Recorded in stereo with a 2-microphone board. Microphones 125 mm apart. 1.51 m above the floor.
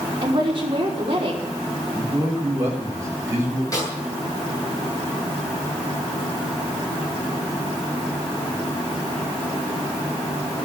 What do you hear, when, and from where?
0.2 s a woman speaking: 40° right (ahead or behind), 5 m
1.9 s a man speaking: 25° right (ahead or behind), 6 m
3.7 s a snare drum: 30° left (ahead or behind), 9 m